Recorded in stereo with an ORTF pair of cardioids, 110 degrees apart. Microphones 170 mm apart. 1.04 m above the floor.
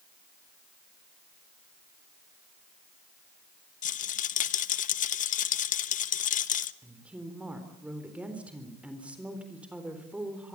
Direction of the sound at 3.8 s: 50° left.